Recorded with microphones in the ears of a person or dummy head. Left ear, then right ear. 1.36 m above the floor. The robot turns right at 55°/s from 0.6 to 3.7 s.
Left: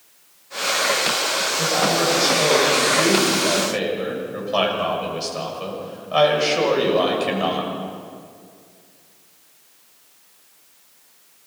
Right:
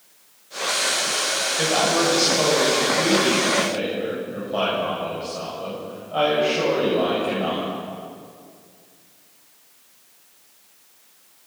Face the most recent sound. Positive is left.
turn(degrees=60)